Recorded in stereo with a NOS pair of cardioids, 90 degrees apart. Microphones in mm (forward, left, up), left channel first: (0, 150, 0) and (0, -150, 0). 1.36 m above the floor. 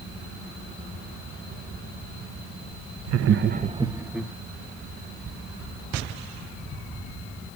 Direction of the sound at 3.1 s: 60° right.